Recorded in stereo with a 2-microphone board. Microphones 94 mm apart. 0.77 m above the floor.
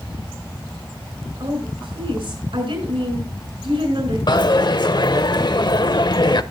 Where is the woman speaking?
75° right (ahead or behind), 8 m.